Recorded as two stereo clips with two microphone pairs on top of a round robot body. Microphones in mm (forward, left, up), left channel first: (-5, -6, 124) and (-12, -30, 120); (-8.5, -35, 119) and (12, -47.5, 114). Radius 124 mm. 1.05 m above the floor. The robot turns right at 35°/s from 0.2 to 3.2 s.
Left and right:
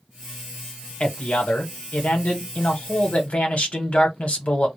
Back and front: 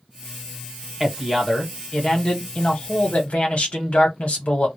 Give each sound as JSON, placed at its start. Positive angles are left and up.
{"t": 1.0, "sound": "a man speaking", "azimuth_deg": 35, "distance_m": 1.2}